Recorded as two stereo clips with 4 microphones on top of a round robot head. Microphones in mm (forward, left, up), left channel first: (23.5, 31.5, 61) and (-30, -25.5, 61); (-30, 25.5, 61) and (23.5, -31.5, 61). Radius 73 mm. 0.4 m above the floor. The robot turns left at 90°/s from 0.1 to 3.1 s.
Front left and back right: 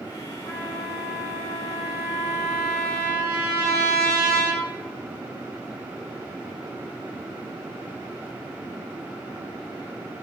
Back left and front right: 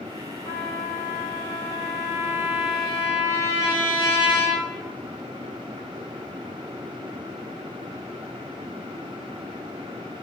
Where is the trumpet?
70° left, 2.5 m; by 4.7 s 165° right, 2.5 m.